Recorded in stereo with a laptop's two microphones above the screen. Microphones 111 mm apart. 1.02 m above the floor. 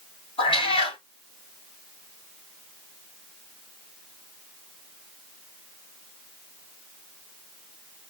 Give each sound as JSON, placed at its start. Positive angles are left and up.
{"t": 0.4, "sound": "a cat meowing", "side_deg": 50, "distance_m": 1.7}